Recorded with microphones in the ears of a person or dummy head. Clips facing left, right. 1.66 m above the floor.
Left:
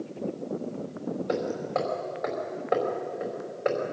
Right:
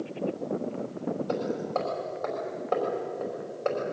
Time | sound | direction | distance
1.3 | hammering | 20° left (ahead or behind) | 5 m